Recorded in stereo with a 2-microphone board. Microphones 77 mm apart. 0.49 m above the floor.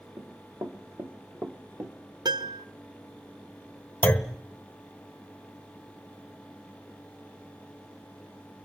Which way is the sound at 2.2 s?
60° right (ahead or behind).